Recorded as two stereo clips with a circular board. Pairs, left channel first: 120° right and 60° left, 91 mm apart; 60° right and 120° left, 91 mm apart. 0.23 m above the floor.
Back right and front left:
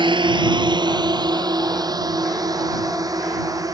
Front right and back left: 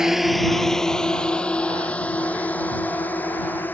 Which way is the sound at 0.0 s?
35° left.